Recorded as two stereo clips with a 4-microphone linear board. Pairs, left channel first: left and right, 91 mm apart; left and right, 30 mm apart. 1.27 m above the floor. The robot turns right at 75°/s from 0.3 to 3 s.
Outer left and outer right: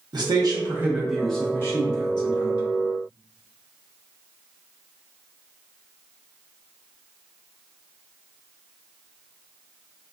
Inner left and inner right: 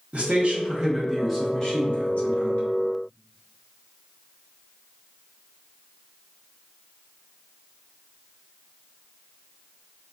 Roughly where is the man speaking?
Ahead right.